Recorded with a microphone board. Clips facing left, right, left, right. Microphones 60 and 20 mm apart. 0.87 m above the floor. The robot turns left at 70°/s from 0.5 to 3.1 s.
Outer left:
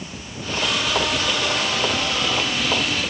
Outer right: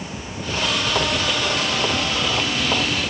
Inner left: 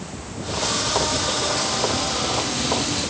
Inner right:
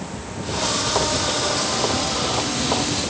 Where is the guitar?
No guitar in this recording.